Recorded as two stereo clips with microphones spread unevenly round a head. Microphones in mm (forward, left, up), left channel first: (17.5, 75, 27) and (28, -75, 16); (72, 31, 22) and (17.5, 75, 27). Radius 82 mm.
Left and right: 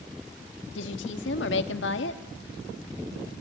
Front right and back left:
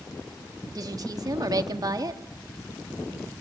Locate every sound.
0.8 s a woman speaking: 105° left, 2 m